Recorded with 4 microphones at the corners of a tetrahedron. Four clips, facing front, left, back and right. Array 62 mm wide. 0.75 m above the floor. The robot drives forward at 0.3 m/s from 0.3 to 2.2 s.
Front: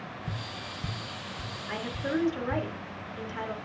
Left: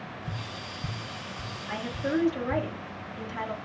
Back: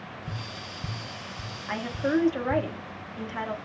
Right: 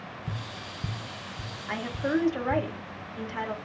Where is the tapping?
70° right, 0.5 m; by 2.7 s 130° right, 0.6 m.